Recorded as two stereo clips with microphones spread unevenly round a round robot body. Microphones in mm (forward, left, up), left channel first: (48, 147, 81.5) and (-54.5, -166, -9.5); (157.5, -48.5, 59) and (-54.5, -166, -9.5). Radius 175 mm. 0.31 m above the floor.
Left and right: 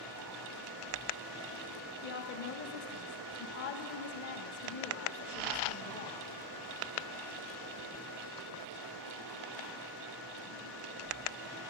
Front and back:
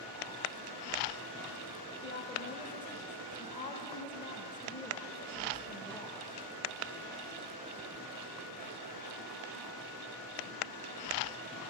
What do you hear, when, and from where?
2.0 s a woman speaking: 110° left, 0.9 m